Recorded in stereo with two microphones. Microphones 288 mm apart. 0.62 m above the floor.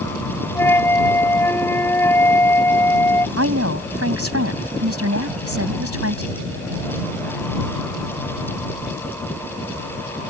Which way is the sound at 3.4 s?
50° right (ahead or behind).